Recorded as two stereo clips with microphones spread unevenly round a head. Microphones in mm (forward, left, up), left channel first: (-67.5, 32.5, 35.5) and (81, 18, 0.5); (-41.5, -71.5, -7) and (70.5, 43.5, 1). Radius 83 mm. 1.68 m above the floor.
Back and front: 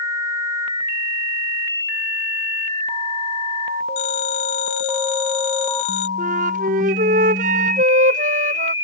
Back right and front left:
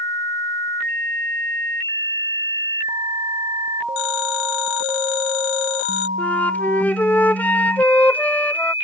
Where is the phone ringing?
140° right.